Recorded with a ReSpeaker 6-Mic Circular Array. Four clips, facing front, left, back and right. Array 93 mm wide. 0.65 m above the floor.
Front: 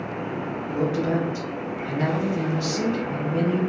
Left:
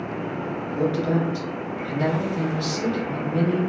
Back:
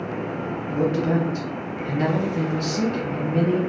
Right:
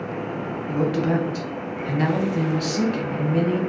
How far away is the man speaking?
About 0.8 m.